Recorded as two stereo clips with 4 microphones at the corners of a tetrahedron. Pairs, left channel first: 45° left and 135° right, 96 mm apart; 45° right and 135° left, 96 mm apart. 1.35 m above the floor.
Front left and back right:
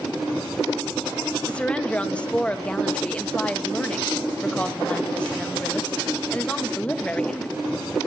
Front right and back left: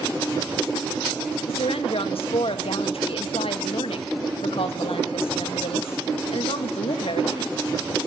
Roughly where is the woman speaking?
Ahead right.